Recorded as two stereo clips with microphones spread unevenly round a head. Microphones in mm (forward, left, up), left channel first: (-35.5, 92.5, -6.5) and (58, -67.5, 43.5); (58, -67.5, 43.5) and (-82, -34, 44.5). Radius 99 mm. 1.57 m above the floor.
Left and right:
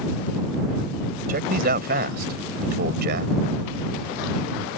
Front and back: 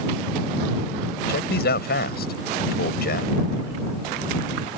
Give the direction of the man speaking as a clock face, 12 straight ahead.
1 o'clock.